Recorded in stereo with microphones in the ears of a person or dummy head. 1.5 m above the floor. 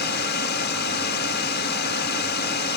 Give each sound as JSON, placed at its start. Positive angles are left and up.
{"t": 0.0, "sound": "a drone", "side_deg": 50}